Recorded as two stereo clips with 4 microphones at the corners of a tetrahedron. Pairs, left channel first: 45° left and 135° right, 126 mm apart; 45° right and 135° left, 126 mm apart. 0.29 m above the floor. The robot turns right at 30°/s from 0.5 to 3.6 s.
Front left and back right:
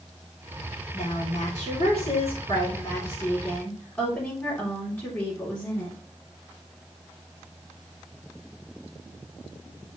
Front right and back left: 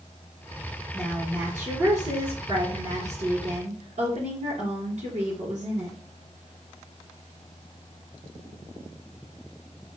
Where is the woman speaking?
40° left, 3.5 m; by 6.0 s 120° left, 3.5 m.